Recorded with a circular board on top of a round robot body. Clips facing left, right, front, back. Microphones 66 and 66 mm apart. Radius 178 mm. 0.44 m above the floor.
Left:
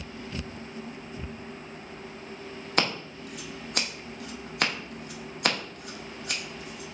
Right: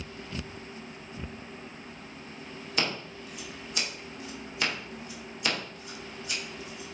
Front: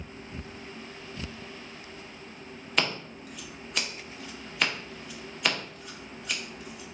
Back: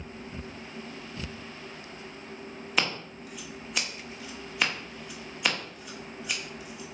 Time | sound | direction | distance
2.8 | scissors | 95° left | 1.9 m